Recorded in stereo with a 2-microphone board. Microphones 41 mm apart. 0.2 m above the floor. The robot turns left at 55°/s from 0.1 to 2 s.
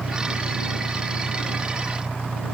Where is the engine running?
80° right; by 2.5 s 175° left.